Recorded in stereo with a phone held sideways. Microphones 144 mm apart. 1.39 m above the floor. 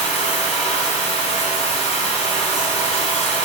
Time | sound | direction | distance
0.0 | running water | 50° left (ahead or behind) | 1.8 m